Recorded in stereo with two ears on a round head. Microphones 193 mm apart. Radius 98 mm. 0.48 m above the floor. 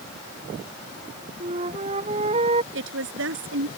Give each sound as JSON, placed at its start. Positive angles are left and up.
{"t": 1.4, "sound": "a flute", "side_deg": -30}
{"t": 2.7, "sound": "a woman speaking", "side_deg": -60}